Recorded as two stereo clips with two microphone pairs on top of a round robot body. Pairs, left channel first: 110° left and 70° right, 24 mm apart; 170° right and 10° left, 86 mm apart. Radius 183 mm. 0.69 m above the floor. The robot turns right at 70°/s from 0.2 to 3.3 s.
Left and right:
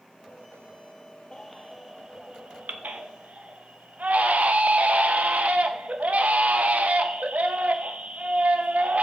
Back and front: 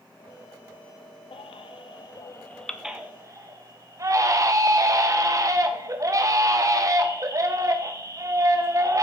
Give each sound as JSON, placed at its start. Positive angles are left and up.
{"t": 1.3, "sound": "a baby crying", "azimuth_deg": 175, "distance_m": 0.9}